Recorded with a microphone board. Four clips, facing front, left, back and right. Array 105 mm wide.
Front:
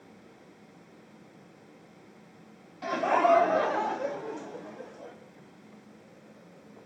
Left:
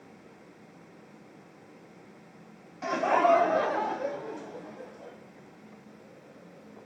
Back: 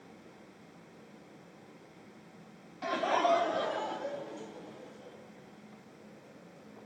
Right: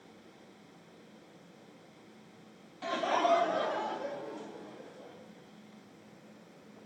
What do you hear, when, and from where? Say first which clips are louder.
2.8 s laughter: left 6 dB, front 5 dB; 90° left, 0.7 m; by 5.2 s 25° left, 2 m